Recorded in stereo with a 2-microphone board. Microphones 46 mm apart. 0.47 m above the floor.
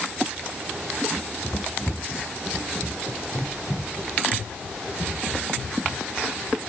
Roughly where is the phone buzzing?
No phone buzzing in this recording.